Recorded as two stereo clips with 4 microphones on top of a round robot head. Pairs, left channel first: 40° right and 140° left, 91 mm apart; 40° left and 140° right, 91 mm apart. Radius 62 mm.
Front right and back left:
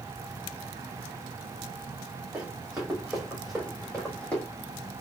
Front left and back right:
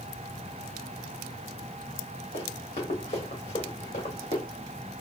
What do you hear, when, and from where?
2.3 s running footsteps: 65° left, 2.5 m; by 4.4 s 40° left, 3 m